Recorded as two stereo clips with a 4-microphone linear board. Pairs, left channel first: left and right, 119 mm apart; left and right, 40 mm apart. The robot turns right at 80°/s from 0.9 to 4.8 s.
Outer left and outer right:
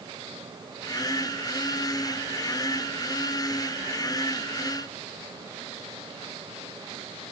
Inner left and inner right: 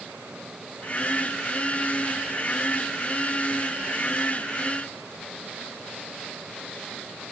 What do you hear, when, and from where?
Only background noise.